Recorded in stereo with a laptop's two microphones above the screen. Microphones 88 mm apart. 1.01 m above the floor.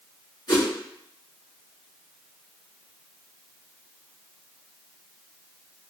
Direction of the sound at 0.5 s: 50° left (ahead or behind).